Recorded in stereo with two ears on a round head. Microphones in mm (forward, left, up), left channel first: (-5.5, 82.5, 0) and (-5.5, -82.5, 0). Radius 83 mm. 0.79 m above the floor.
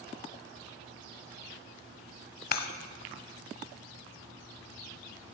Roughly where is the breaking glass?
Left.